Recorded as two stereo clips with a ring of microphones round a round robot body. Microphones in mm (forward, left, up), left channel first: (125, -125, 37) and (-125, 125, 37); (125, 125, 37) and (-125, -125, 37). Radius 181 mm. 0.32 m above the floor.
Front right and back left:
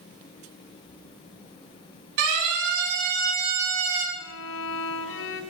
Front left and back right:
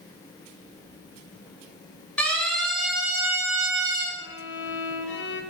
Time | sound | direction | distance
2.2 | a siren | 130° left | 5.5 m
4.2 | a violin | 5° right | 1.6 m